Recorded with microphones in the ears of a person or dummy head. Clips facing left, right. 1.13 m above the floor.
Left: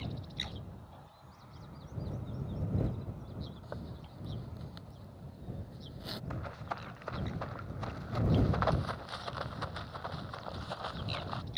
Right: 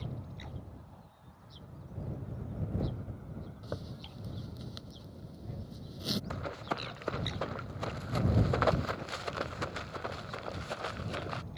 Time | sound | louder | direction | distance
3.6 | a zipper | right 3 dB | 40° right (ahead or behind) | ?
6.3 | running footsteps | right 4 dB | 45° right (ahead or behind) | ?